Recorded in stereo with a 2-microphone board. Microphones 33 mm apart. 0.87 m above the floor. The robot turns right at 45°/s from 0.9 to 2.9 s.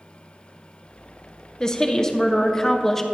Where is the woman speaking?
20° left (ahead or behind), 0.8 m; by 3.0 s 15° left (ahead or behind), 0.8 m.